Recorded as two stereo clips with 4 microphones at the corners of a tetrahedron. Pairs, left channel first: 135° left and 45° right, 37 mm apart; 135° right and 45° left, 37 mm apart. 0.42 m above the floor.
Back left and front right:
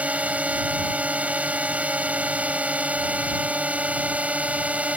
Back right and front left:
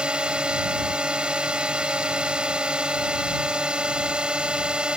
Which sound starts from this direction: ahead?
A drone, at 0.0 s.